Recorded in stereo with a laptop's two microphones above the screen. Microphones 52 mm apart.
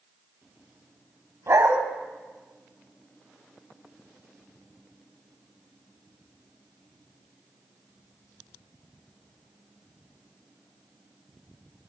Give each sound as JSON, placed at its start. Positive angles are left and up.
{"t": 1.5, "sound": "a dog barking", "side_deg": -60, "distance_m": 1.7}